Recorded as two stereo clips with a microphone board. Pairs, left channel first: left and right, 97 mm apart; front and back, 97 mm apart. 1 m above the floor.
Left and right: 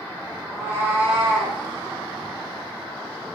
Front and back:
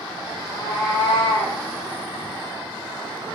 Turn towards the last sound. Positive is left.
turn(degrees=5)